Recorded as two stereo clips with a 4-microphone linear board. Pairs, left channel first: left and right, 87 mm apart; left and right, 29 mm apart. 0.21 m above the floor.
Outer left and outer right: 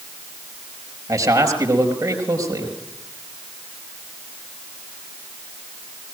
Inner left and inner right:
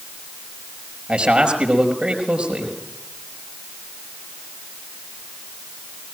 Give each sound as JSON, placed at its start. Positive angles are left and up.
{"t": 1.1, "sound": "a man speaking", "side_deg": -45, "distance_m": 4.5}